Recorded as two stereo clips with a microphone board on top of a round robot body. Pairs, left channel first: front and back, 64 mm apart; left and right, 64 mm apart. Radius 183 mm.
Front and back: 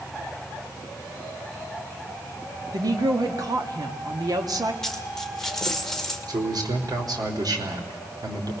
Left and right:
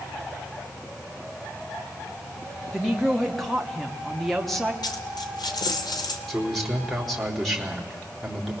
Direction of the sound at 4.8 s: 85° left.